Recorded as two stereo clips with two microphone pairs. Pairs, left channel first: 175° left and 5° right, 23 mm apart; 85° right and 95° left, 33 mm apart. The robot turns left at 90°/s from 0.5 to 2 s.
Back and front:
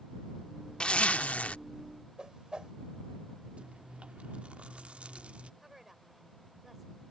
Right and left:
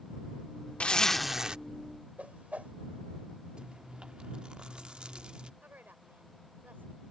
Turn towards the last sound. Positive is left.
turn(degrees=75)